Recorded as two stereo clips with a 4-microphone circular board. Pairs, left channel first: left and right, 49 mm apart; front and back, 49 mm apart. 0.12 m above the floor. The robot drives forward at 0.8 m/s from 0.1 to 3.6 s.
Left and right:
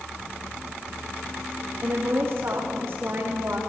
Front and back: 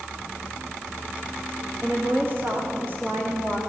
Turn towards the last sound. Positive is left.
turn(degrees=-135)